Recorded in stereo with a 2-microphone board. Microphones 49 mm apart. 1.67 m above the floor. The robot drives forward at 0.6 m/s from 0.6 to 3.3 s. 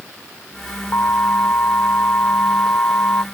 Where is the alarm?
55° left (ahead or behind); by 3.2 s 45° left (ahead or behind).